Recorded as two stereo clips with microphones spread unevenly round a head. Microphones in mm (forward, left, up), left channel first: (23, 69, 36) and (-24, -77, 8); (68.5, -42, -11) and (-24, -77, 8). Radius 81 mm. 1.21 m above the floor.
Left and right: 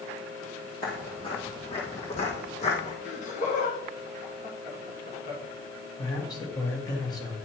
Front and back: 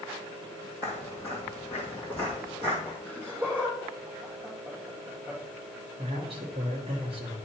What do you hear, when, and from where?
0.8 s footsteps: 100° left, 1.5 m; by 3.0 s 105° left, 2.5 m
3.0 s laughter: 120° left, 1.9 m
6.0 s a man speaking: 145° left, 1.3 m